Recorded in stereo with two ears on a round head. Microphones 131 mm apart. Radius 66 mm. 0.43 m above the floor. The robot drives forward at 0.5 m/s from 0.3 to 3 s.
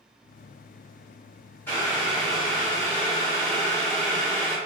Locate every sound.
1.7 s boiling: 15° left (ahead or behind), 1.7 m; by 4.6 s 20° left (ahead or behind), 1.4 m